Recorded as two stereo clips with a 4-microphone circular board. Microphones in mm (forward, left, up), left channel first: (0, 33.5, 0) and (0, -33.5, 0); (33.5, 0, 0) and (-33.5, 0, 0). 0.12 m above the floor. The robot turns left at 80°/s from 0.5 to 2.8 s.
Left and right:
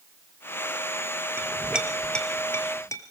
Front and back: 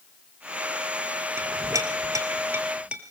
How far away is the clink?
About 1.9 m.